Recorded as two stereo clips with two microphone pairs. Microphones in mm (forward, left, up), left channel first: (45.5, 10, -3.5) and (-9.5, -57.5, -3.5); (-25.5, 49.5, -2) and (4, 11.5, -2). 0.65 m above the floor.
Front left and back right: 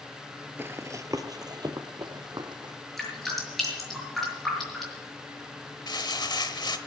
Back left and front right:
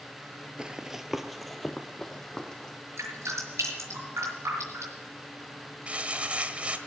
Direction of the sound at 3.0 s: 35° right.